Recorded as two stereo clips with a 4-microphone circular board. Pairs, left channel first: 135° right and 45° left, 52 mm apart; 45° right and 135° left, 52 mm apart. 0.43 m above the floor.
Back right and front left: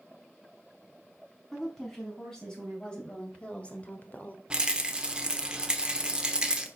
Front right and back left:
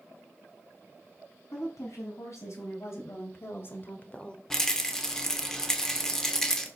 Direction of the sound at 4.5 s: 15° left.